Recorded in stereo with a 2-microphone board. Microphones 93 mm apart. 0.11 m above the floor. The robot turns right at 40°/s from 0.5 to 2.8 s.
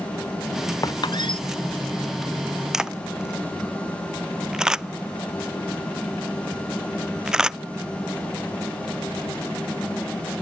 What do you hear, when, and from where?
0.8 s a squeak: 40° left (ahead or behind); by 1.4 s 65° left (ahead or behind)
2.7 s a camera shutter: 5° right (ahead or behind)